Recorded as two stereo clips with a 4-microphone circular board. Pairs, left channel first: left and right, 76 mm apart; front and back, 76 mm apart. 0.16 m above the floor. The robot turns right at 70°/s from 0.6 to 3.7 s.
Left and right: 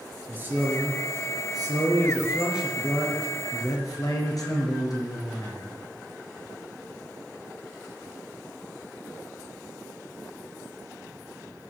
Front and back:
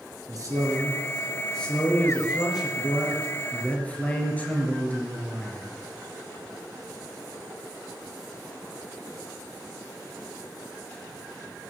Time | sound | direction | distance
0.3 | a man speaking | 150° right | 3.5 m